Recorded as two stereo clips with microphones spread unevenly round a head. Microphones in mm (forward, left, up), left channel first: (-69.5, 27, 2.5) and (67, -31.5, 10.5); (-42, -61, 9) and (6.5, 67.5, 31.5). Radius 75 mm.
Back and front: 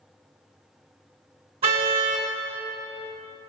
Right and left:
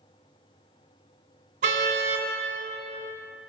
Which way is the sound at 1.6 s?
30° left.